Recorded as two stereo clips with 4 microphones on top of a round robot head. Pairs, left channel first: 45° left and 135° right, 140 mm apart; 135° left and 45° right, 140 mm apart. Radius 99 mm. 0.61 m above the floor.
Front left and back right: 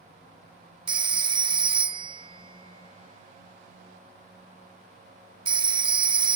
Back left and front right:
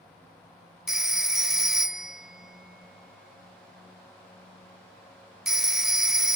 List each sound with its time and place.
0.9 s a phone ringing: 130° right